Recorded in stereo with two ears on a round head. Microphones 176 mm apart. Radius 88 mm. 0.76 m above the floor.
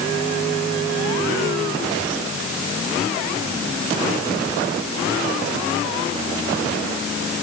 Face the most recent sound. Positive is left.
No sound to turn to.